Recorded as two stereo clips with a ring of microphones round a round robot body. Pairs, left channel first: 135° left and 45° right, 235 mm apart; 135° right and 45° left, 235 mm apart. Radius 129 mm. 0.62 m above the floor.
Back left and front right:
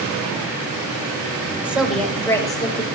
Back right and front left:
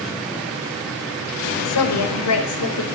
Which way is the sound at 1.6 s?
130° right.